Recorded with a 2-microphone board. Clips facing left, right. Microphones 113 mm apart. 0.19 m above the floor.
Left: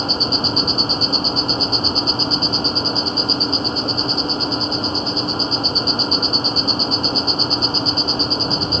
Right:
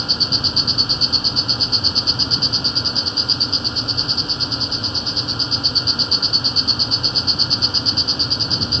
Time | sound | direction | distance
0.0 | an insect | 40° left (ahead or behind) | ?